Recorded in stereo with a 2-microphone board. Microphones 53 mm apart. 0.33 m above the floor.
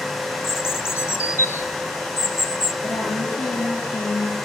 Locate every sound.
0.4 s a bird: 60° left (ahead or behind), 0.6 m
2.8 s a woman speaking: 75° left (ahead or behind), 6.5 m